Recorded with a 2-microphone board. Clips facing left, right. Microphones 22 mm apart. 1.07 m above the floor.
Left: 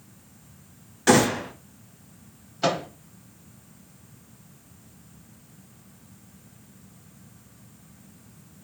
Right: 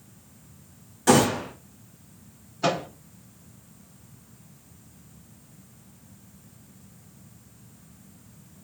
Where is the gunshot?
35° left (ahead or behind), 1.5 m.